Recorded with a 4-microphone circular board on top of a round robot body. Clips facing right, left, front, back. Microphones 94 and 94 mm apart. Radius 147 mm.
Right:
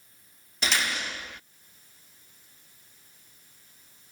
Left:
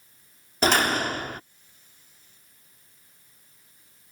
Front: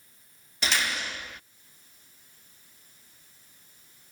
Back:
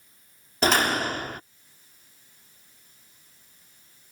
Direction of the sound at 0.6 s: 135° left.